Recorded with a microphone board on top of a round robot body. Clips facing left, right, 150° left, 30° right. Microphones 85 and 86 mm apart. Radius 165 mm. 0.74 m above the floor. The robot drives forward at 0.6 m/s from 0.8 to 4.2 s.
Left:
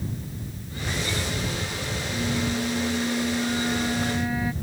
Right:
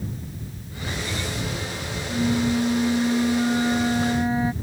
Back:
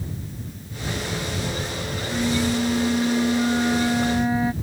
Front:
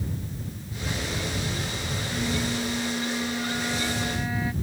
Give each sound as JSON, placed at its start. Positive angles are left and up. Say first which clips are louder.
{"t": 2.1, "sound": "a flute", "louder": "right 6 dB, back 7 dB", "azimuth_deg": -135}